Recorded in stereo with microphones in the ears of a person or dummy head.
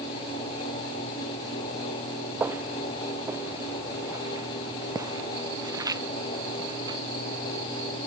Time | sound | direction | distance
2.4 | footsteps | 10° right (ahead or behind) | ?